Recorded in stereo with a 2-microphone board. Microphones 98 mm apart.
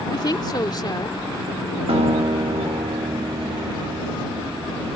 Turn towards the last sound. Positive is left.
turn(degrees=-70)  # may be behind; listen again after turning